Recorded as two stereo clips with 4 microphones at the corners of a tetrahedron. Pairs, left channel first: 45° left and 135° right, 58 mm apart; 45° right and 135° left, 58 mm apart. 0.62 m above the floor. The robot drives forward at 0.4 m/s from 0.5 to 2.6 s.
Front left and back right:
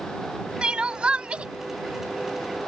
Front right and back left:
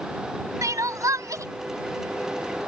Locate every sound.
0.6 s crying: 150° left; by 1.4 s 155° left